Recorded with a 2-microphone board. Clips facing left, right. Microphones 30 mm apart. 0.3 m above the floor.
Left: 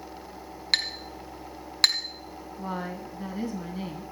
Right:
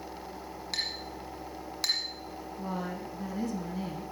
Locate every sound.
0.7 s a clink: 75° left (ahead or behind), 1.6 m
2.6 s a woman speaking: 25° left (ahead or behind), 3 m